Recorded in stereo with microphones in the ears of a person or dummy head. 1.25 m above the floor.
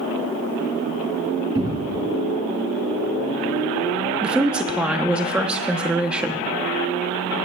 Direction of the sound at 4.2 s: 5° right (ahead or behind).